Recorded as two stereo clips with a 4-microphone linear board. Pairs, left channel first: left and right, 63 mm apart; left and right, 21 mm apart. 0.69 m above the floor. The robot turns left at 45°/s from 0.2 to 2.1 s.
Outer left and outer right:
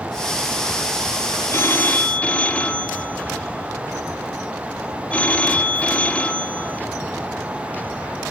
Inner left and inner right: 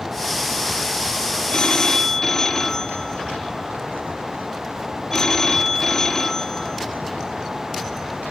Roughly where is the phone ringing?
Left.